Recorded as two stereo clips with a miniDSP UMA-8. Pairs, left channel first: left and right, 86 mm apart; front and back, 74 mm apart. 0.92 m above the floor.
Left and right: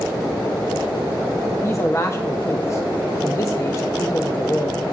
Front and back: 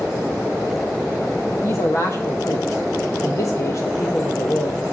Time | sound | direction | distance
1.6 | a man speaking | 40° left | 0.6 m